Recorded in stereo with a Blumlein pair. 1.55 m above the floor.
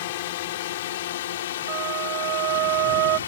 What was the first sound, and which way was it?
A drone, 55° left.